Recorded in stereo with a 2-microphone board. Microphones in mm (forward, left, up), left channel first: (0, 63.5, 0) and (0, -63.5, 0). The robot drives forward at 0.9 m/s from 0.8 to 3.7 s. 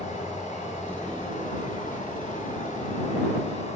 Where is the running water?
70° left (ahead or behind), 3.5 m; by 3.8 s 65° left (ahead or behind), 3.5 m.